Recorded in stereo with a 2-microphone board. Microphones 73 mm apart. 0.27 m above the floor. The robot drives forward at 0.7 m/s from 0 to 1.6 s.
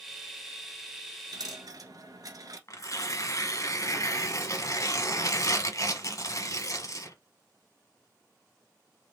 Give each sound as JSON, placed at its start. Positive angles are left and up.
{"t": 1.3, "sound": "a dropped coin", "side_deg": -65, "distance_m": 1.2}
{"t": 2.7, "sound": "tearing paper", "side_deg": 45, "distance_m": 1.1}